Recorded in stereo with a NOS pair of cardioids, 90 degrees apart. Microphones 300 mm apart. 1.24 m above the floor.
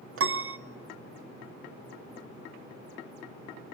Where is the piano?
55° right, 1.3 m.